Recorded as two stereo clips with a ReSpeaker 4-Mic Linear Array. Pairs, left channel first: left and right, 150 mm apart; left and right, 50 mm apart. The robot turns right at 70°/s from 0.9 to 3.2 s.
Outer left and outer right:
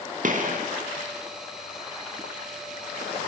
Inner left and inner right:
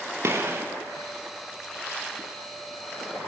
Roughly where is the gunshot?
Right.